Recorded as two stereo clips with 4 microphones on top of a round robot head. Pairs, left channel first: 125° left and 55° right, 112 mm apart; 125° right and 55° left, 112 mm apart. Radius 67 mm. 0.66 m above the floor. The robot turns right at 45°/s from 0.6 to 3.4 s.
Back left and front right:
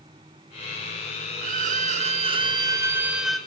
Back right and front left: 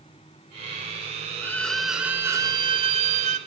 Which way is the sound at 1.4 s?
50° right.